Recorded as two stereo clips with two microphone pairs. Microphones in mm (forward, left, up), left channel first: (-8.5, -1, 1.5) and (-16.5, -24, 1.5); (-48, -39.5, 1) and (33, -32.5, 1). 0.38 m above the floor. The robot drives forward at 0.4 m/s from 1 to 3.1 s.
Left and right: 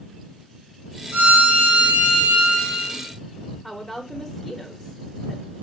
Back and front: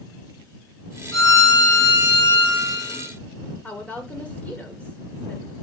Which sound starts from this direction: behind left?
A woman speaking, at 3.6 s.